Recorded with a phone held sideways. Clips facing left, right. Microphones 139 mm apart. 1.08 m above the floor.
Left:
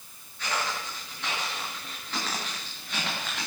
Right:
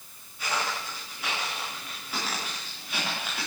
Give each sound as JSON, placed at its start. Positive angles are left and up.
{"t": 0.4, "sound": "footsteps", "side_deg": -10, "distance_m": 9.0}